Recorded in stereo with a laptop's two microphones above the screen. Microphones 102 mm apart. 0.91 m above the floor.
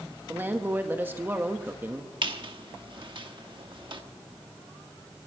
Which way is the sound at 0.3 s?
20° right (ahead or behind).